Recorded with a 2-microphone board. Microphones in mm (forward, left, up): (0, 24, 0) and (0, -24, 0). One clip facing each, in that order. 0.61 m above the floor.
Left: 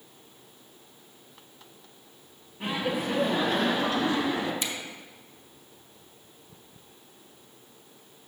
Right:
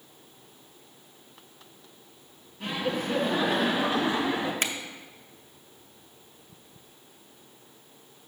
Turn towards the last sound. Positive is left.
turn(degrees=-55)  # may be behind; listen again after turning